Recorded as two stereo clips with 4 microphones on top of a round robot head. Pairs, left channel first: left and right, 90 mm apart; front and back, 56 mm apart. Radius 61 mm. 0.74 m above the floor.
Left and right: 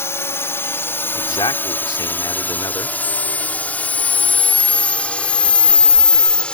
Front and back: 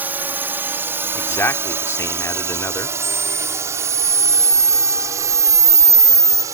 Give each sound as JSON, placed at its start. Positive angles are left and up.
{"t": 0.0, "sound": "a drone", "azimuth_deg": 140}
{"t": 1.1, "sound": "a man speaking", "azimuth_deg": 40}
{"t": 3.0, "sound": "a camera shutter", "azimuth_deg": 135}